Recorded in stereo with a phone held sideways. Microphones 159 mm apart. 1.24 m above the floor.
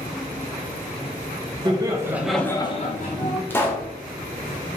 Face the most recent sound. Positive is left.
turn(degrees=15)  # may be behind; listen again after turning